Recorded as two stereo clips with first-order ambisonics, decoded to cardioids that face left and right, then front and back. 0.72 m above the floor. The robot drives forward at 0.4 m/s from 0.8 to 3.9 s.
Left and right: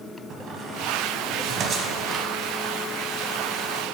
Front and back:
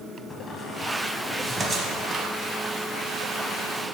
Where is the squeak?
60° right, 0.7 m; by 2.3 s 140° right, 0.7 m.